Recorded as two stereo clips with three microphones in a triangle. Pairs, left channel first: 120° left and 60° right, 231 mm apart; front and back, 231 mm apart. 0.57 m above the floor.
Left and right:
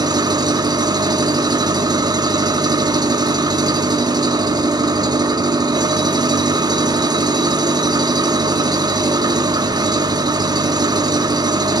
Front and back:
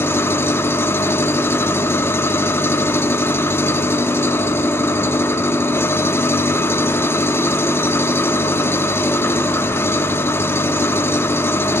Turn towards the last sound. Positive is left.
turn(degrees=-55)